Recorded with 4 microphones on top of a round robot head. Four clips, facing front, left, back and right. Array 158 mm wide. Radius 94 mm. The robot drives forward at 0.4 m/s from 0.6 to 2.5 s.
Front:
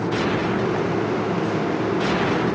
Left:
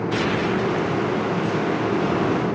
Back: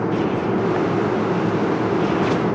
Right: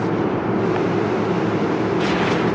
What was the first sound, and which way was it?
Only background noise.